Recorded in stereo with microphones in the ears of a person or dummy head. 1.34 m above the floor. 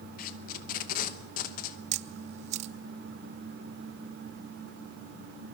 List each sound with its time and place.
0.2 s tape being pulled: 45° left (ahead or behind), 1.0 m
1.9 s a camera shutter: 40° right (ahead or behind), 0.7 m